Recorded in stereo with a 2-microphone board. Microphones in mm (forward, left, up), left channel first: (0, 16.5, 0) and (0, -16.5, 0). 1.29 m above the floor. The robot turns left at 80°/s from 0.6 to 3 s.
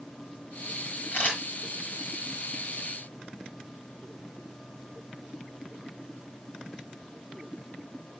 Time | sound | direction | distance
1.1 | a camera shutter | 80° left | 5.5 m